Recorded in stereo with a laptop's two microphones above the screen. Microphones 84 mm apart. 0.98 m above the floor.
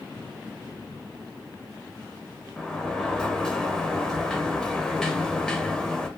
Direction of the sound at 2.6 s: 10° left (ahead or behind).